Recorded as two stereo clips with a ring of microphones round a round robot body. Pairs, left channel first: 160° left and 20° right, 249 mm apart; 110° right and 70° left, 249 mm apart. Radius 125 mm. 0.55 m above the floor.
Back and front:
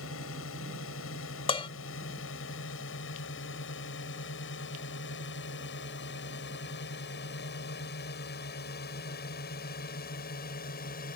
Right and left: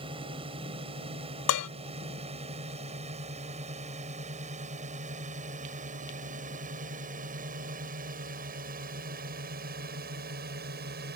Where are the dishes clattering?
135° right.